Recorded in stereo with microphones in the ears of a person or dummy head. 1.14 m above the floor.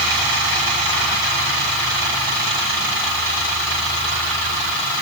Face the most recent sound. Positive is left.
No sound to turn to.